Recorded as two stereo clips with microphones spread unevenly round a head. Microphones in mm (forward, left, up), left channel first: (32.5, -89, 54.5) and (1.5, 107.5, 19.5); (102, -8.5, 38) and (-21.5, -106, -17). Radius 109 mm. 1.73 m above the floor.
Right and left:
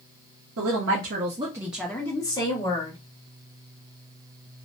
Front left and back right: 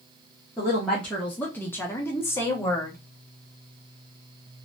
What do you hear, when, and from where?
0.6 s a woman speaking: 110° left, 0.6 m; by 3.0 s 25° right, 1.1 m